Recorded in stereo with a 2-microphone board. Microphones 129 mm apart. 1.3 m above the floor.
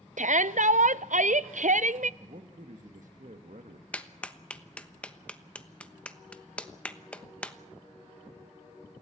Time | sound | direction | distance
0.2 | a shout | 75° right (ahead or behind) | 0.6 m
2.2 | a man speaking | 75° right (ahead or behind) | 1.5 m
3.9 | a clap | 10° left (ahead or behind) | 1.1 m